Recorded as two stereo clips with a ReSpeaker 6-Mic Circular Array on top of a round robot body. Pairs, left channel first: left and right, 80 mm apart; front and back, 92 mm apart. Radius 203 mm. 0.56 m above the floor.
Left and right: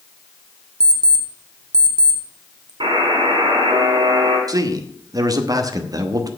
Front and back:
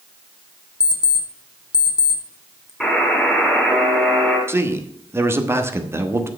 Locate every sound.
0.8 s an alarm clock: 50° right, 1.4 m
2.8 s a buzzer: 90° right, 4.5 m
4.5 s a man speaking: 120° right, 1.4 m